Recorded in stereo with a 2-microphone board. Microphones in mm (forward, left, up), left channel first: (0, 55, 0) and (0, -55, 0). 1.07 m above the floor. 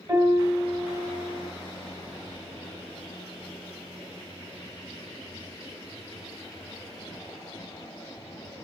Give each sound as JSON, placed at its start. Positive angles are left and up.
{"t": 0.1, "sound": "a piano", "side_deg": -25, "distance_m": 2.5}